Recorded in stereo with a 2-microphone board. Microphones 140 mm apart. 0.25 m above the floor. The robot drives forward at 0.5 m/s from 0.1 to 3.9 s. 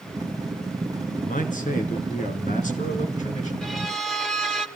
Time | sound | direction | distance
1.2 | a man speaking | 70° left (ahead or behind) | 3 m
3.6 | a violin | centre (ahead or behind) | 1.6 m